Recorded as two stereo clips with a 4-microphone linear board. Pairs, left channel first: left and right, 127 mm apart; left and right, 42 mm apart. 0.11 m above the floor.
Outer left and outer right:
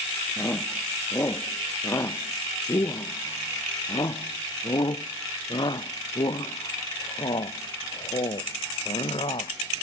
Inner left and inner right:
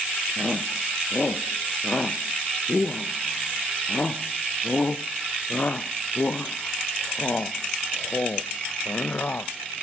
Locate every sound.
0.4 s a shout: 20° left (ahead or behind); by 9.5 s 50° left (ahead or behind)